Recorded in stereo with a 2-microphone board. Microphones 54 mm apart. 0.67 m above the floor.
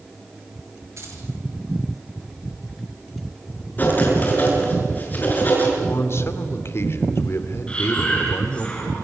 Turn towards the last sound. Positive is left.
turn(degrees=20)  # may be behind; listen again after turning